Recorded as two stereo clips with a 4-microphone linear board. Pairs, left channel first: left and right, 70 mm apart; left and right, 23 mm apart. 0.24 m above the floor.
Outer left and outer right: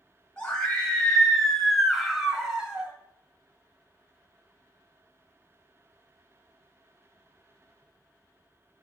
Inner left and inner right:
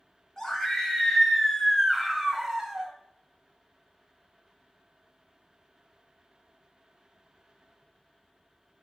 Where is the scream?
15° left (ahead or behind), 2.5 m; by 2.9 s 20° right (ahead or behind), 1.3 m.